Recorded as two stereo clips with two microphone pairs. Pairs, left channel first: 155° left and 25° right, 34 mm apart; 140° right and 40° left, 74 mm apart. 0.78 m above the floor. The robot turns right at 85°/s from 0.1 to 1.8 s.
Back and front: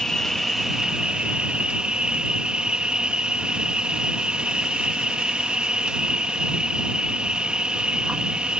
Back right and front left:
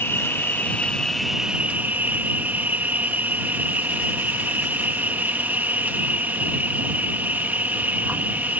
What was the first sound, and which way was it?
An insect, 145° right.